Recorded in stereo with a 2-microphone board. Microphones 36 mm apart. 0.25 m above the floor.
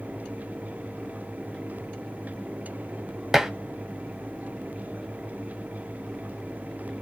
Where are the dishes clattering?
15° right (ahead or behind), 0.8 m.